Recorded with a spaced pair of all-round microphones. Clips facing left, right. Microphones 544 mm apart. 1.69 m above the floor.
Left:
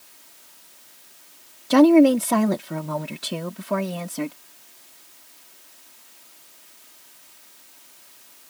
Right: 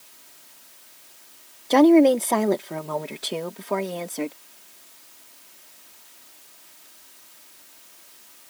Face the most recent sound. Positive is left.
turn(degrees=35)  # may be behind; listen again after turning